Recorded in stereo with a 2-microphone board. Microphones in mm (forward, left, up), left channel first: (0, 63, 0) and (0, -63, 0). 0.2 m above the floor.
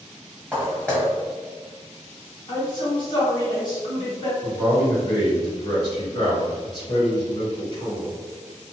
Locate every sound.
0.5 s footsteps: 10° left (ahead or behind), 1.5 m
2.5 s a woman speaking: 40° left (ahead or behind), 2.0 m
4.4 s a man speaking: 40° left (ahead or behind), 1.9 m